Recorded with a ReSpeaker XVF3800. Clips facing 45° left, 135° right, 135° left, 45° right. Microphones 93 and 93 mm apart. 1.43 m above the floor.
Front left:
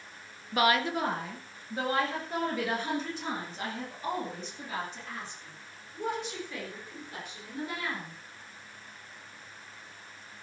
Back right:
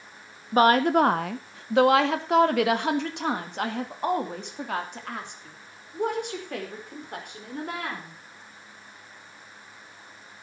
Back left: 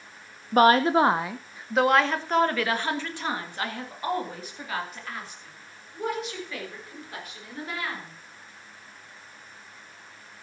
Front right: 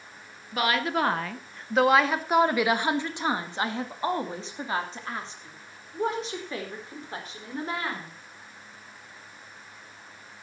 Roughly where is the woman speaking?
Behind.